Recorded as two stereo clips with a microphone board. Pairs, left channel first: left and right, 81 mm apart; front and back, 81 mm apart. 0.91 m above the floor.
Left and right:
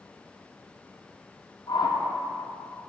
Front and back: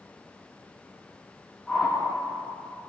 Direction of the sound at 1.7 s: 75° left.